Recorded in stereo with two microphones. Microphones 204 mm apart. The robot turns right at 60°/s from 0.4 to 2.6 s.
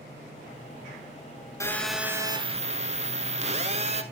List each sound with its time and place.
1.6 s a phone buzzing: 160° left, 0.8 m; by 4.0 s 140° right, 0.8 m